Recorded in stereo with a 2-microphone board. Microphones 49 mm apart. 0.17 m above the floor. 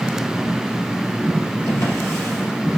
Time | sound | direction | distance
1.7 | a drawer | 70° left (ahead or behind) | 2.5 m